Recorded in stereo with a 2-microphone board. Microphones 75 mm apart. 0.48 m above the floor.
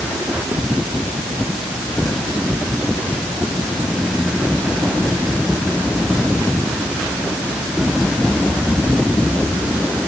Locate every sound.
Only background noise.